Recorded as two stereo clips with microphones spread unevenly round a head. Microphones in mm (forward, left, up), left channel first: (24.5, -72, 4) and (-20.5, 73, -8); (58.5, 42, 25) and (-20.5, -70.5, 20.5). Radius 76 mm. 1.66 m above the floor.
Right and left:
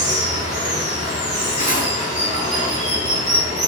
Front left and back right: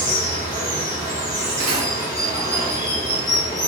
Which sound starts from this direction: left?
Running water, at 0.0 s.